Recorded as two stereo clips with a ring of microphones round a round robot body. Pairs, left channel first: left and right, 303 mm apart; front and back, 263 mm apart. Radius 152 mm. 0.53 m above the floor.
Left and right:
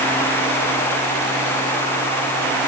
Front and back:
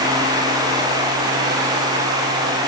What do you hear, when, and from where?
Only background noise.